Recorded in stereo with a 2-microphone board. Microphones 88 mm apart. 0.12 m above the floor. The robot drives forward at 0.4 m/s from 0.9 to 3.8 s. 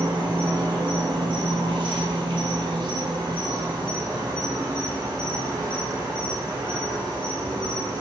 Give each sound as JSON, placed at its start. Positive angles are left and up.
{"t": 0.0, "sound": "an insect", "side_deg": -55, "distance_m": 1.0}